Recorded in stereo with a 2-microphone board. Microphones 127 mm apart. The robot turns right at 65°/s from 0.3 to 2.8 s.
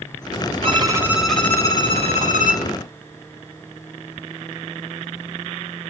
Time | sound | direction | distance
0.6 | a violin | 45° right | 0.8 m